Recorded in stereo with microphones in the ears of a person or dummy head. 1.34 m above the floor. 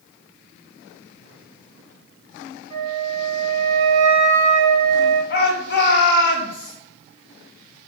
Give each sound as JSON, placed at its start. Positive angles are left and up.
{"t": 2.7, "sound": "a flute", "side_deg": -40, "distance_m": 3.0}
{"t": 5.3, "sound": "a shout", "side_deg": 65, "distance_m": 2.5}